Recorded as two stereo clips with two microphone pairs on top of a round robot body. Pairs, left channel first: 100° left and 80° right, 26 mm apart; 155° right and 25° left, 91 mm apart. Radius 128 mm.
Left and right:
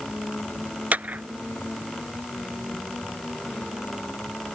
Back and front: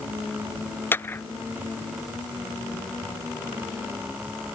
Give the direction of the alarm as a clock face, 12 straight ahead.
I don't hear an alarm.